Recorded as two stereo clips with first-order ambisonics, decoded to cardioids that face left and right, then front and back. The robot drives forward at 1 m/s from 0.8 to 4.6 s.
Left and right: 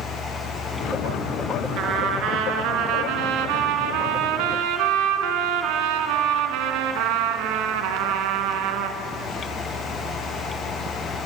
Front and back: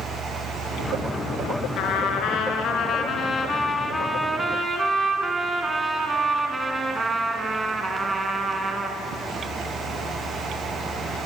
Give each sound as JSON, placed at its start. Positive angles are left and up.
{"t": 1.8, "sound": "a trumpet", "azimuth_deg": -40, "distance_m": 3.5}